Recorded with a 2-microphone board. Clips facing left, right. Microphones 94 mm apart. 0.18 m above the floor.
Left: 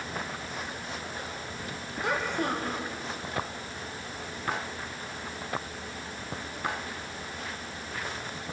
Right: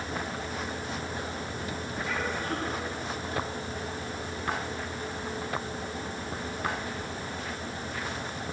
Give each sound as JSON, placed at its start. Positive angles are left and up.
{"t": 2.0, "sound": "a child speaking", "side_deg": 65, "distance_m": 7.0}